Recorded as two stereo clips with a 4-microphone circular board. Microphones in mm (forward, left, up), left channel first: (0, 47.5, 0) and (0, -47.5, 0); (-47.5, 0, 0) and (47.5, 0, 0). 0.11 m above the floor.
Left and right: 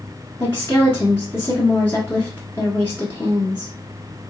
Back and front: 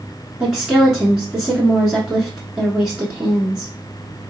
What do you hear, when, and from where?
0.4 s a woman speaking: 70° left, 1.2 m